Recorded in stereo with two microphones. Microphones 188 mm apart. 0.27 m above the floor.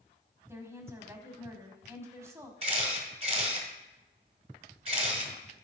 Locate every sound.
0.5 s a woman speaking: 15° right (ahead or behind), 1.5 m
2.6 s a camera shutter: 35° right (ahead or behind), 1.7 m